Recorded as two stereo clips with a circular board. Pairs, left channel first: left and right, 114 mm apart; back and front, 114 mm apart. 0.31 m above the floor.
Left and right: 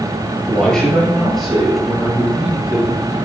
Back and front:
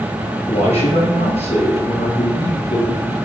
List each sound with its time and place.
0.5 s a man speaking: 170° left, 7.5 m; by 3.1 s 170° right, 7 m